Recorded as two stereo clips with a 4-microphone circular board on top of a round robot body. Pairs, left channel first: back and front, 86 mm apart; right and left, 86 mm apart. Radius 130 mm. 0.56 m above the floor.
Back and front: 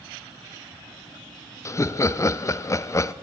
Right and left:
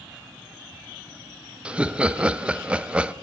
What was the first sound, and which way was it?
Laughter, 160° left.